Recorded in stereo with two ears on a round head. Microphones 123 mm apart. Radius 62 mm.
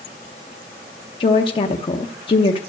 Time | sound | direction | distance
1.2 | a woman speaking | 35° left (ahead or behind) | 0.7 m